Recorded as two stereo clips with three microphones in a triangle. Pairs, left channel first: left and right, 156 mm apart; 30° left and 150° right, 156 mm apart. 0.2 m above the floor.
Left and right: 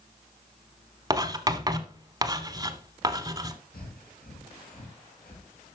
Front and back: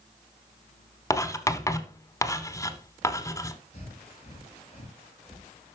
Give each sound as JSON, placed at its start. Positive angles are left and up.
{"t": 1.1, "sound": "writing", "azimuth_deg": -35, "distance_m": 1.0}
{"t": 3.7, "sound": "breathing", "azimuth_deg": 75, "distance_m": 3.5}